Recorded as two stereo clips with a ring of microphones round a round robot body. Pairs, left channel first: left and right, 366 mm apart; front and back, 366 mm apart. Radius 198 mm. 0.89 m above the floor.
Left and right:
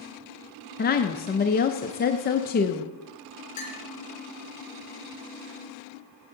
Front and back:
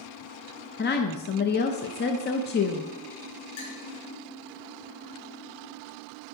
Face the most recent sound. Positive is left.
turn(degrees=50)